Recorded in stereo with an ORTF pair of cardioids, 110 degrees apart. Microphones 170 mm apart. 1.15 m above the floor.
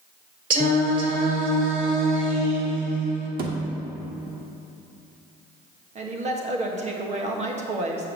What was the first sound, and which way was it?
Singing, 55° right.